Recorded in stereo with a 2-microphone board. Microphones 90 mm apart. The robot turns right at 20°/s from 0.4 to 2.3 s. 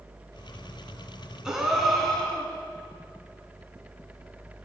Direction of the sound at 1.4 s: 10° right (ahead or behind).